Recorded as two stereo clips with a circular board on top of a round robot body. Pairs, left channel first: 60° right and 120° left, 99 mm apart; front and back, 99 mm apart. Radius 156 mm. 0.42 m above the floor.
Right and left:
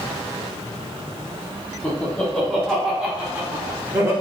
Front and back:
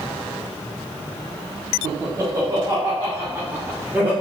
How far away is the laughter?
About 1.5 m.